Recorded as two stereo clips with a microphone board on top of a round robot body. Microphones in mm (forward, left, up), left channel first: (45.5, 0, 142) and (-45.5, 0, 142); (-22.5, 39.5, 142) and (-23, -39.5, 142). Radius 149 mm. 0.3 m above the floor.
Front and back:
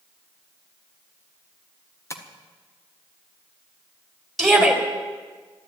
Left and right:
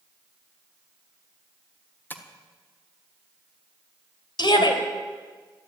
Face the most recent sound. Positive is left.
turn(degrees=90)